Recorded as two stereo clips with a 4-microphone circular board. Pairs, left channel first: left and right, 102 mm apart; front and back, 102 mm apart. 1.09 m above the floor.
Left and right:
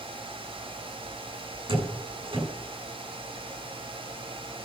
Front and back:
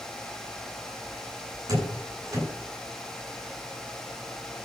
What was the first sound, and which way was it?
A door slam, 125° right.